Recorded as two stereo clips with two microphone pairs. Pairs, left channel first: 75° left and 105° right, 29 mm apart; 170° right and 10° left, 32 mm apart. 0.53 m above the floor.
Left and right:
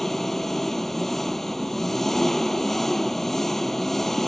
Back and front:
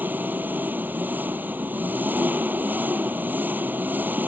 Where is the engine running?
5° right.